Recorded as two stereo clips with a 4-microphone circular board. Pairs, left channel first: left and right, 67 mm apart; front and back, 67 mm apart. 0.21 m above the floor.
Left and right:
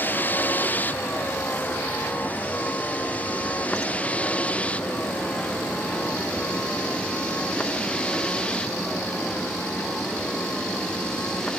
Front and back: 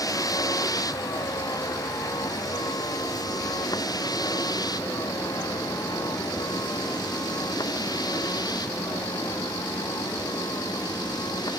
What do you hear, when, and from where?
0.0 s a vehicle: 30° left; by 11.6 s 15° left